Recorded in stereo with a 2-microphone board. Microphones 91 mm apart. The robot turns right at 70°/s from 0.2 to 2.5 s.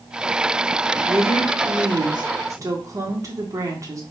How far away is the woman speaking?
About 1.2 m.